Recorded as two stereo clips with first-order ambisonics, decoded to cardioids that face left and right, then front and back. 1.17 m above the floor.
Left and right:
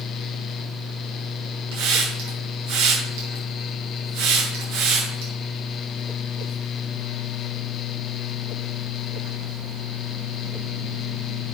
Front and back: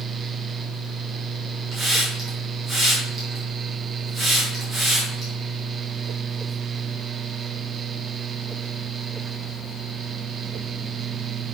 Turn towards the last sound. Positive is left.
turn(degrees=-105)